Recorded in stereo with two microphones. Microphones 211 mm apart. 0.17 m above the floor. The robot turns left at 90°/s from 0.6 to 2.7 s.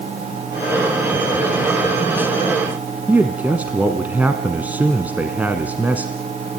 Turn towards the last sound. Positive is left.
turn(degrees=-10)  # may be behind; listen again after turning